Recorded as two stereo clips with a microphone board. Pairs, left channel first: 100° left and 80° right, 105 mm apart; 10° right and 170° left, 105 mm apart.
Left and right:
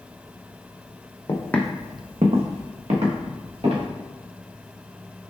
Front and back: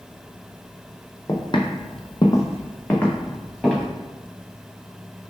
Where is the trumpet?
I don't hear a trumpet.